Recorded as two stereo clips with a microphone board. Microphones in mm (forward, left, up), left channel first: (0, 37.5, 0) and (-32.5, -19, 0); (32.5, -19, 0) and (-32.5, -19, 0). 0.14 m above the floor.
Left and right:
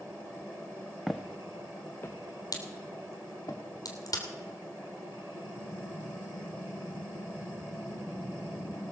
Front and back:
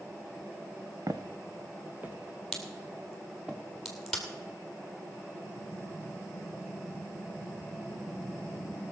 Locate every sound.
1.1 s footsteps: 150° left, 1.1 m; by 3.5 s 95° left, 3 m
2.5 s a crack: 85° left, 2.5 m